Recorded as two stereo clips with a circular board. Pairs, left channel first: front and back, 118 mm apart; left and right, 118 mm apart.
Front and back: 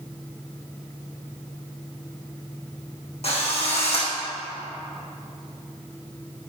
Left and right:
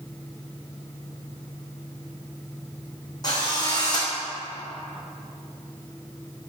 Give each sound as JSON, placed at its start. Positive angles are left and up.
{"t": 3.2, "sound": "a drill", "azimuth_deg": 35, "distance_m": 3.5}